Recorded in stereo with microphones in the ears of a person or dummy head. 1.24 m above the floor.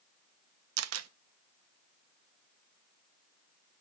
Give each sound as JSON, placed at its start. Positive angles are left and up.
{"t": 0.8, "sound": "a camera shutter", "side_deg": -90, "distance_m": 0.5}